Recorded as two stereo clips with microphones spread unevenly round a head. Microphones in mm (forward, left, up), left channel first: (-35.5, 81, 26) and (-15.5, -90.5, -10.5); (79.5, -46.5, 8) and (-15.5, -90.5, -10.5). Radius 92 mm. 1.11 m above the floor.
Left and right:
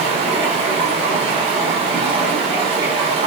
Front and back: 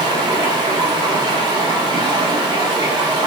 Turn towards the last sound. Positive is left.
turn(degrees=-135)